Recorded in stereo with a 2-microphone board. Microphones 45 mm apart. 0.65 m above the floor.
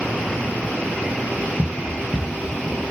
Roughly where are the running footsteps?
Left.